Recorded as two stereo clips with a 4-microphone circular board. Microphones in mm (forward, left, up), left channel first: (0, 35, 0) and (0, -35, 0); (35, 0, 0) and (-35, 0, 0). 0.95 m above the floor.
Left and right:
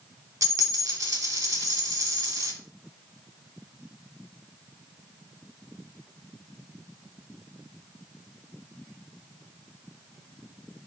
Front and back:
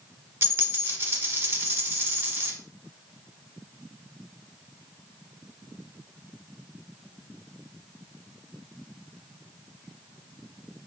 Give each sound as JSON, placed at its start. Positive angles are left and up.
{"t": 0.4, "sound": "a dropped coin", "azimuth_deg": -120, "distance_m": 1.2}